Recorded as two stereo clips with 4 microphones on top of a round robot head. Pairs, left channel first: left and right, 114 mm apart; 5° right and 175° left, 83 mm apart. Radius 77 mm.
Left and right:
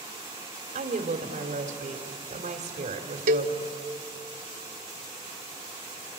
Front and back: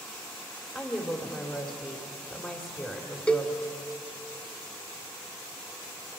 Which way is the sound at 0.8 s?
80° right.